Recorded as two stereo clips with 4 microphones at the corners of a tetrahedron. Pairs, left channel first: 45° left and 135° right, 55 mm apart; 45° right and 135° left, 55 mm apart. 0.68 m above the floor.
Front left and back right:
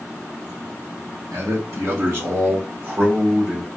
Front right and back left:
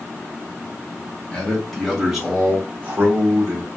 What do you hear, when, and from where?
1.3 s a man speaking: 120° right, 1.8 m; by 3.7 s 160° left, 1.6 m